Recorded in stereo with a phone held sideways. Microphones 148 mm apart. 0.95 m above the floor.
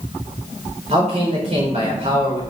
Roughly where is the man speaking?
Right.